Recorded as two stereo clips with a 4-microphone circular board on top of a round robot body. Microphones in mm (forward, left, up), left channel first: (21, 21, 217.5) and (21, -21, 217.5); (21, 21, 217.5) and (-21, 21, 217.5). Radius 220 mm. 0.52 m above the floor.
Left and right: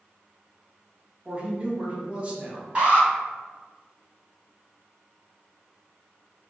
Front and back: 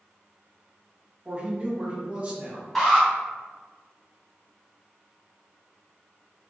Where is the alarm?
80° right, 1.9 m.